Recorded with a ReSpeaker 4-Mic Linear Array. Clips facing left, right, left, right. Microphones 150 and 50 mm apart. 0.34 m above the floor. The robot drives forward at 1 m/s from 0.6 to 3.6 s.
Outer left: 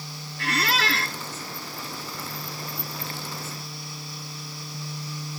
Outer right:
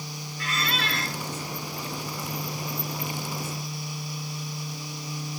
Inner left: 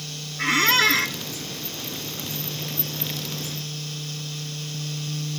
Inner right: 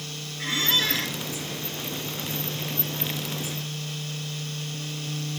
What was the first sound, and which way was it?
A squeak, 70° left (ahead or behind).